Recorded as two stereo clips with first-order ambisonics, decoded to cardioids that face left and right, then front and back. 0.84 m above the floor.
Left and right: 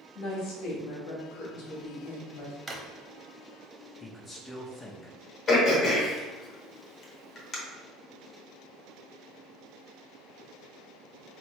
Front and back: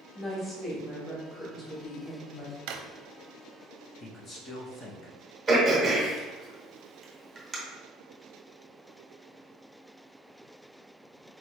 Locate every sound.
0.1 s a woman speaking: 85° left, 1.4 m
2.7 s a drawer: 165° right, 0.6 m
4.0 s a man speaking: 30° left, 0.7 m
5.5 s throat clearing: 100° left, 1.0 m